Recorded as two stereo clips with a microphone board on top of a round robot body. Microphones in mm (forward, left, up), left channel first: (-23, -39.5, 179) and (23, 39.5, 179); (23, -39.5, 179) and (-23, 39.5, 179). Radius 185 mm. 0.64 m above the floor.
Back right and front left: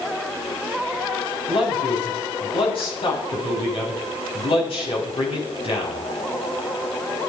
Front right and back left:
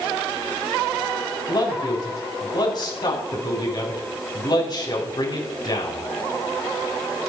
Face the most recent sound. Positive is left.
turn(degrees=-100)